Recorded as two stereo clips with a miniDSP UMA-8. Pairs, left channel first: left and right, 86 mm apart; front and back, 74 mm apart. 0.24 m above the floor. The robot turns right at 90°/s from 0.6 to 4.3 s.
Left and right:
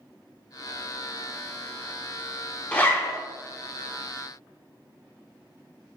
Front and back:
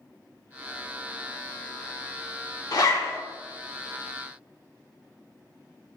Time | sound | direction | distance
2.7 | a zipper | 20° left | 0.6 m